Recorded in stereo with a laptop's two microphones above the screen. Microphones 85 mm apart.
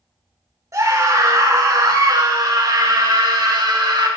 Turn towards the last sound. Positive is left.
turn(degrees=-60)  # may be behind; listen again after turning